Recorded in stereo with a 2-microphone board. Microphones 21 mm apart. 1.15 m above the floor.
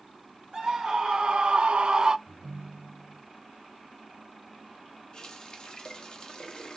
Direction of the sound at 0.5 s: 40° right (ahead or behind).